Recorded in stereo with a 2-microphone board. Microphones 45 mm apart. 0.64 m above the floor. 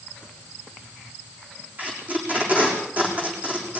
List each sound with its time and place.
1.8 s tape being pulled: 35° right (ahead or behind), 6.5 m